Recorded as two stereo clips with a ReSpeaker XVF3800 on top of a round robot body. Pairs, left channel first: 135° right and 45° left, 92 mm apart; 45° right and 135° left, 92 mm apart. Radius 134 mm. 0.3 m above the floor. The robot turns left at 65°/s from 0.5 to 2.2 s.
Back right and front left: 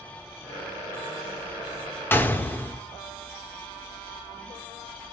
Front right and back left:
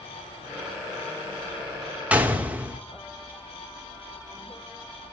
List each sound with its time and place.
2.1 s a gunshot: 170° right, 1.6 m; by 2.8 s 175° right, 1.6 m